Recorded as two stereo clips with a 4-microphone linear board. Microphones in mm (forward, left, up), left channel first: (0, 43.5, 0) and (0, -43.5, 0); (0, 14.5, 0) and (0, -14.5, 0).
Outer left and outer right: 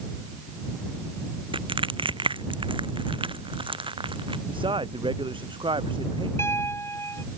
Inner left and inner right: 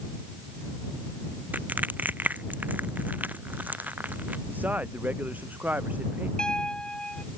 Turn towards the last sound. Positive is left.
turn(degrees=30)  # may be behind; listen again after turning